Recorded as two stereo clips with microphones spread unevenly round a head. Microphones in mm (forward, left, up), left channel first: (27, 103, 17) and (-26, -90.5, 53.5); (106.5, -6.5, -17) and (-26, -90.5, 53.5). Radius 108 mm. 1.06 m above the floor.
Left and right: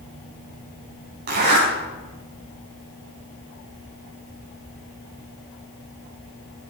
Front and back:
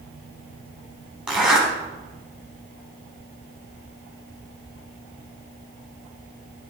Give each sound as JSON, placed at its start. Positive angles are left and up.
{"t": 1.3, "sound": "a zipper", "azimuth_deg": -65, "distance_m": 4.5}